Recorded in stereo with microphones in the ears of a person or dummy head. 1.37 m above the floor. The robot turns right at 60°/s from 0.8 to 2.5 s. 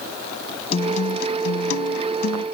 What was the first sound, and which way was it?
A guitar, 35° left.